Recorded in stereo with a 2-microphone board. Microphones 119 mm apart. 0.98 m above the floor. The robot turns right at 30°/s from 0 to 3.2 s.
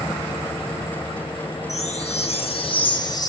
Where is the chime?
100° left, 1.9 m; by 3.3 s 145° left, 1.9 m.